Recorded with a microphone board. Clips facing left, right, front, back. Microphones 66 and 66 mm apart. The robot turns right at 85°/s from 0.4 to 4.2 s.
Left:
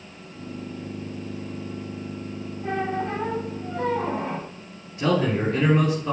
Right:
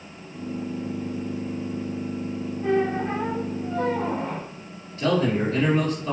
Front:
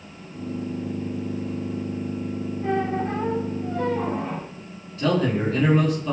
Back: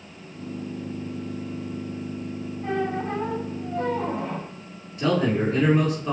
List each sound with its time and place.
2.6 s a squeak: 60° right, 1.8 m; by 4.5 s 75° left, 1.8 m
5.0 s a man speaking: 125° left, 1.2 m